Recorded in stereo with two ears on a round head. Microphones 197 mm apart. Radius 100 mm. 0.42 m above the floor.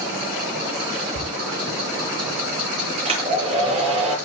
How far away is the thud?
About 5.5 m.